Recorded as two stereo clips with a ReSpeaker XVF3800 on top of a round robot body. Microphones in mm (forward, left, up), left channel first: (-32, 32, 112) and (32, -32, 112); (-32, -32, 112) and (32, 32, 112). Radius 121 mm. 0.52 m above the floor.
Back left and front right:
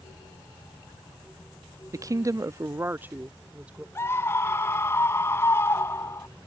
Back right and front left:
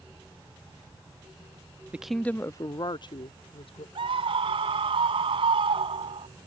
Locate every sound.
1.9 s a woman speaking: 25° right; by 3.9 s 125° right
4.0 s a scream: 70° left